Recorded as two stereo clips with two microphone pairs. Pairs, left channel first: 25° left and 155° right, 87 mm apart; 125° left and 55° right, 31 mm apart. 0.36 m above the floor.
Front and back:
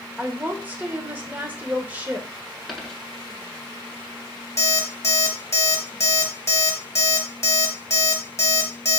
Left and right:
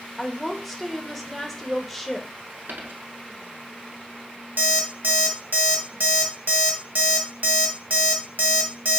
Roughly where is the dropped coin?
Right.